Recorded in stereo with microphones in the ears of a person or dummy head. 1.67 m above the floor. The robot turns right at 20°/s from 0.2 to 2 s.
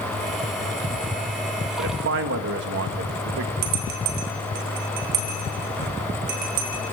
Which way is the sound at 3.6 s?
55° right (ahead or behind).